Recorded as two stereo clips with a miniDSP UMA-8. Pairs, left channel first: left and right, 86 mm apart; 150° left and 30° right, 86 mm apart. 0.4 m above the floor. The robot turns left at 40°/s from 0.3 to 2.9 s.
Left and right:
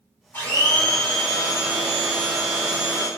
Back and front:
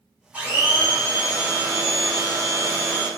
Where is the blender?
35° left, 1.4 m; by 3.1 s 65° right, 1.4 m.